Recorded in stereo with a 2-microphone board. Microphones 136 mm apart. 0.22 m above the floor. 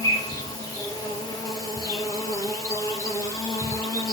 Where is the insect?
25° left (ahead or behind), 3.5 m.